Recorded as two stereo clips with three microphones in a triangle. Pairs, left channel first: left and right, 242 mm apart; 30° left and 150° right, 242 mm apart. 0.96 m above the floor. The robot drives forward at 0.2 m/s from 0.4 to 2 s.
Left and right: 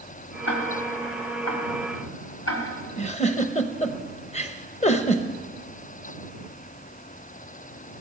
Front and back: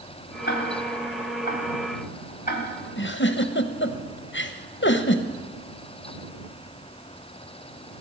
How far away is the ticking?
About 2 m.